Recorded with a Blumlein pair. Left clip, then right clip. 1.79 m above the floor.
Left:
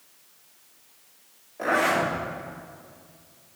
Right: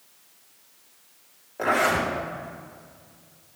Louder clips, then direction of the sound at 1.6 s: Right 1 dB; 70° right.